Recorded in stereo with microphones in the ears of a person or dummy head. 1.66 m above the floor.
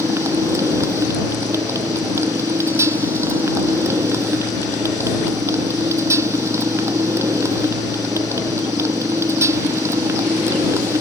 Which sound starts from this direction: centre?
A motorcycle, at 0.0 s.